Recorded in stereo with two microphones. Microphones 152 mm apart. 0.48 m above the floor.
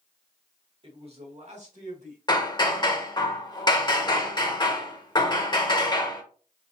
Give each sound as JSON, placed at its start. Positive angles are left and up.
{"t": 0.8, "sound": "a man speaking", "side_deg": -35, "distance_m": 1.1}
{"t": 2.3, "sound": "hammering", "side_deg": 30, "distance_m": 0.8}